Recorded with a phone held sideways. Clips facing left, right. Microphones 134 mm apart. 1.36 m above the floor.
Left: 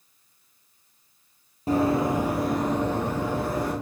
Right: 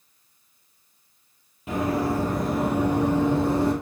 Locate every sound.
1.7 s running footsteps: 35° left (ahead or behind), 1.7 m; by 3.7 s 30° right (ahead or behind), 3 m